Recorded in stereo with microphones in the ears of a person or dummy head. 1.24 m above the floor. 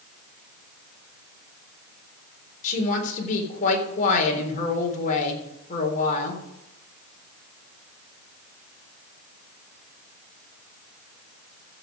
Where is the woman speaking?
45° left (ahead or behind), 3.5 m.